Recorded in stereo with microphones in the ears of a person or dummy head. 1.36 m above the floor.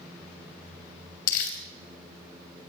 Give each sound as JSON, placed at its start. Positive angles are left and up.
{"t": 1.3, "sound": "crumpling", "side_deg": 75, "distance_m": 3.0}